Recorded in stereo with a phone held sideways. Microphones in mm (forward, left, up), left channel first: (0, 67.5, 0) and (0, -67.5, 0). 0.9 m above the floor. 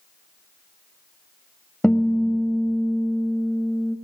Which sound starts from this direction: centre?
A guitar, at 1.8 s.